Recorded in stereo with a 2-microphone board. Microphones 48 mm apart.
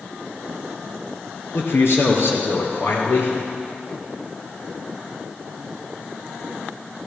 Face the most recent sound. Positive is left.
turn(degrees=60)  # may be behind; listen again after turning